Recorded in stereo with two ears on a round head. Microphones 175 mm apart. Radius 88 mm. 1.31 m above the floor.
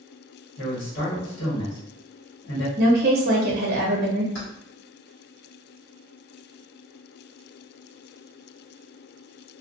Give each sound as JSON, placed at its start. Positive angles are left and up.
{"t": 0.6, "sound": "a man speaking", "side_deg": 55, "distance_m": 1.4}
{"t": 2.8, "sound": "a woman speaking", "side_deg": -55, "distance_m": 0.8}
{"t": 4.3, "sound": "keys jangling", "side_deg": 55, "distance_m": 1.4}